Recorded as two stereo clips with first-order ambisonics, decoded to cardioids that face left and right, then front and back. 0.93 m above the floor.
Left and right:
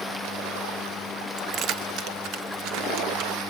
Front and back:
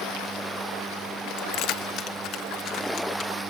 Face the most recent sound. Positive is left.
turn(degrees=-55)